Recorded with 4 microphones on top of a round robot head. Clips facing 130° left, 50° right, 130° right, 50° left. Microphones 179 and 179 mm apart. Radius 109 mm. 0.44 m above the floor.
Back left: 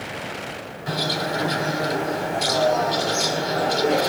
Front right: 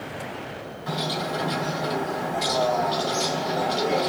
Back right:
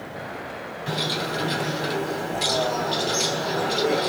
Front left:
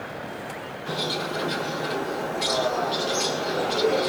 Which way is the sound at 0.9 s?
170° right.